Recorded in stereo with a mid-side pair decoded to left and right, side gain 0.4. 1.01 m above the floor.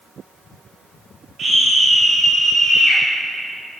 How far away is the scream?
About 2.5 m.